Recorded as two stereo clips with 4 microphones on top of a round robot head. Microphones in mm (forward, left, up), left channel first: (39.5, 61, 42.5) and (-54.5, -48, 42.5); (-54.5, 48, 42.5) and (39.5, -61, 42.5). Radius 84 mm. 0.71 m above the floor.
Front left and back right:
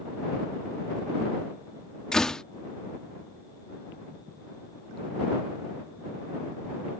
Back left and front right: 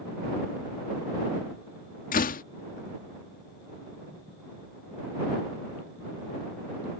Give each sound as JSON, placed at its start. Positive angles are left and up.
{"t": 2.1, "sound": "a door slam", "azimuth_deg": 135}